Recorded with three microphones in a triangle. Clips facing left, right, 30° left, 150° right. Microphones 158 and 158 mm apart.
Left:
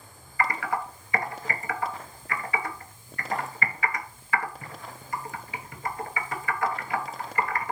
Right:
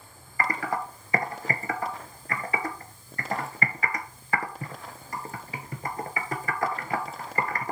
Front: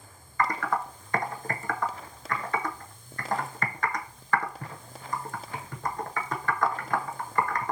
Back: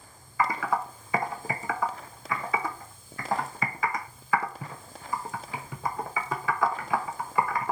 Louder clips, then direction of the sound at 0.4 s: Left 1 dB, back 1 dB; 70° right.